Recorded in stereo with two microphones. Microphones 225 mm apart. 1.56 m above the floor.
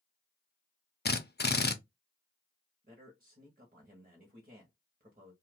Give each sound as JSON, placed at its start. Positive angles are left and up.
{"t": 1.1, "sound": "a drill", "side_deg": 45, "distance_m": 0.5}
{"t": 2.8, "sound": "a man speaking", "side_deg": -40, "distance_m": 1.0}